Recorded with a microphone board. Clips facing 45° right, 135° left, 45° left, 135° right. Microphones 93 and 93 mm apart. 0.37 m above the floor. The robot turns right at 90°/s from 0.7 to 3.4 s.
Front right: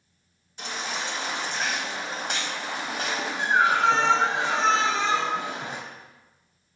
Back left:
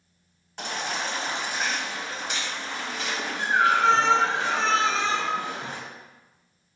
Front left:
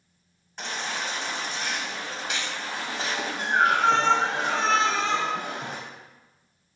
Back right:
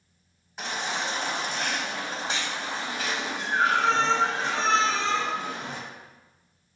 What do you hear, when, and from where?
0.6 s a baby crying: 140° left, 1.1 m; by 5.8 s 20° left, 1.1 m